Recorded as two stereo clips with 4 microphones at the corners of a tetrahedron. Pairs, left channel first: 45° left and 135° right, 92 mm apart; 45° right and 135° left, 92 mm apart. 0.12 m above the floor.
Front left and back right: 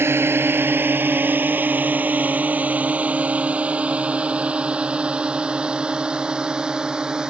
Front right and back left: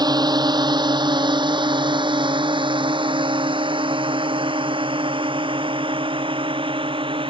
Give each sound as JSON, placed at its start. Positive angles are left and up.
{"t": 0.0, "sound": "a drone", "azimuth_deg": 165}